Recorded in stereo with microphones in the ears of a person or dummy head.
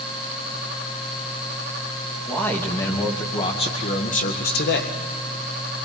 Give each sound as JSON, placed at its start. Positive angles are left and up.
{"t": 2.3, "sound": "a man speaking", "side_deg": 10, "distance_m": 2.5}